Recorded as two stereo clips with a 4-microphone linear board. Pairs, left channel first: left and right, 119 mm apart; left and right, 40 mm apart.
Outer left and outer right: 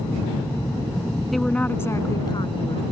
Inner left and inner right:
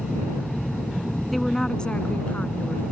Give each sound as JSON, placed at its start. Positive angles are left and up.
{"t": 1.3, "sound": "a woman speaking", "side_deg": 0}